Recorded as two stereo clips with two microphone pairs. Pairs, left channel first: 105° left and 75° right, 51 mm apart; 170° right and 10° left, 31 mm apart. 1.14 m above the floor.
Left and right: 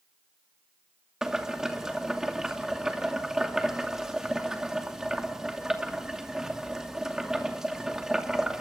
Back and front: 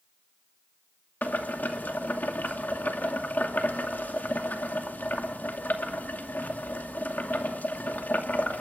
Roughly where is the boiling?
Behind right.